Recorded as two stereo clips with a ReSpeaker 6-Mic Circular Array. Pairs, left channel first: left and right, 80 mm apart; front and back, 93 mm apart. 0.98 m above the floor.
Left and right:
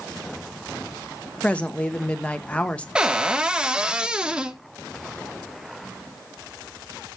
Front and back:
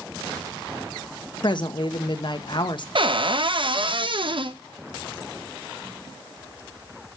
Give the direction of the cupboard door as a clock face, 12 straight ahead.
6 o'clock.